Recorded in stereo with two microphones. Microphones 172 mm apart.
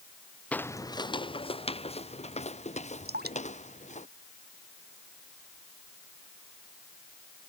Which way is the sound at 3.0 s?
70° right (ahead or behind).